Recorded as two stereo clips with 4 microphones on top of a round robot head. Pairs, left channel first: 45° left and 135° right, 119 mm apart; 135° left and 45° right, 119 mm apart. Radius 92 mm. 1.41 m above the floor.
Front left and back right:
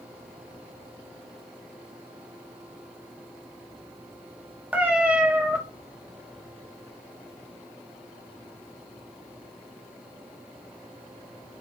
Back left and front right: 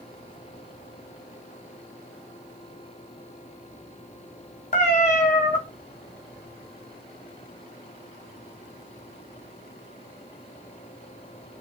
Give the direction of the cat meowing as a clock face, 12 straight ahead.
7 o'clock.